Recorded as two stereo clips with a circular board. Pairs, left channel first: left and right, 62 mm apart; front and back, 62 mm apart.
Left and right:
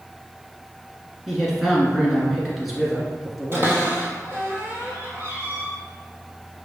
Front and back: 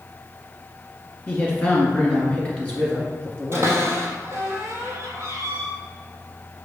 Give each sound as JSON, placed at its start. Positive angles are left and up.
{"t": 1.3, "sound": "a man speaking", "azimuth_deg": -5, "distance_m": 1.2}
{"t": 3.5, "sound": "a cupboard door", "azimuth_deg": -135, "distance_m": 1.0}